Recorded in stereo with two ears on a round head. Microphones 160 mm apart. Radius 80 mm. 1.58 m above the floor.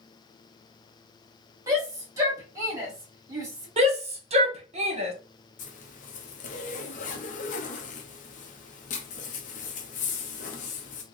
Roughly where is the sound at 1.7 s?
Centre.